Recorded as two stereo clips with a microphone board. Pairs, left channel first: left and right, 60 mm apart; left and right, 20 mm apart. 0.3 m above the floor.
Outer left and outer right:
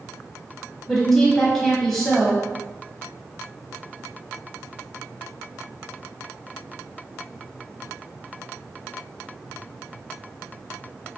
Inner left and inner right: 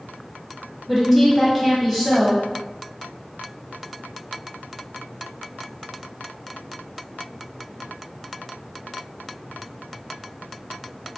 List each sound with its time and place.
0.9 s a woman speaking: 5° left (ahead or behind), 1.6 m